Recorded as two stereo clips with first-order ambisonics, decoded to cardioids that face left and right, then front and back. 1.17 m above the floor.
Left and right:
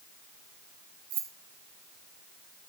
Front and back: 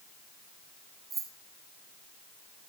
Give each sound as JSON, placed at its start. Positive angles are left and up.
{"t": 1.1, "sound": "keys jangling", "azimuth_deg": -115, "distance_m": 1.6}